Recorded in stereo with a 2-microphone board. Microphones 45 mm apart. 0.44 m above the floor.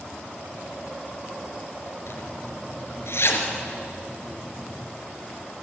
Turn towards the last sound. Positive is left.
turn(degrees=70)  # may be behind; listen again after turning